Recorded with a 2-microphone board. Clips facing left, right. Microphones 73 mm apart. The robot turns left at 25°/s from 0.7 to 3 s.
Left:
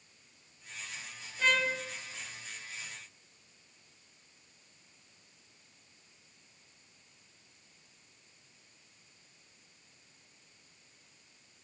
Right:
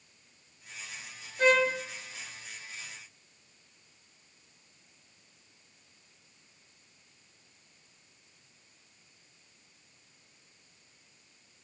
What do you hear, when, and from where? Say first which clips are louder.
1.4 s a trumpet: right 6 dB; 50° right (ahead or behind), 3.5 m; by 1.8 s 45° right (ahead or behind), 3.5 m